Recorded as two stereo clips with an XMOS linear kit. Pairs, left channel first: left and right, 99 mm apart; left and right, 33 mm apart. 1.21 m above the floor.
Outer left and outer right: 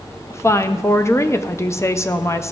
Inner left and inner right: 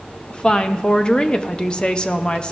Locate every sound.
0.3 s a woman speaking: 30° left (ahead or behind), 0.5 m